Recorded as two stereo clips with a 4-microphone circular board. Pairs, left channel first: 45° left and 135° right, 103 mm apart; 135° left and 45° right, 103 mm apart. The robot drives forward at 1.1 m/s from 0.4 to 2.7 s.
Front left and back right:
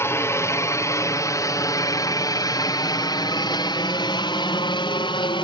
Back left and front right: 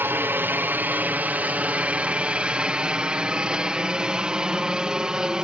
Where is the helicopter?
5° left; by 5.5 s 35° left.